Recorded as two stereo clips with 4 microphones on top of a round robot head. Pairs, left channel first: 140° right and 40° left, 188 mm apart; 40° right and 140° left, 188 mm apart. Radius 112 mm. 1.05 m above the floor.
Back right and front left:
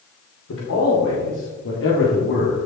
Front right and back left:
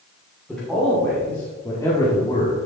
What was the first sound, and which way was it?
A man speaking, 130° right.